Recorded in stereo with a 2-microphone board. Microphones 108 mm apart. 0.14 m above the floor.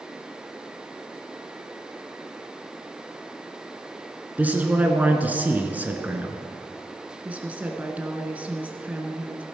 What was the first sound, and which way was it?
A man speaking, 15° right (ahead or behind).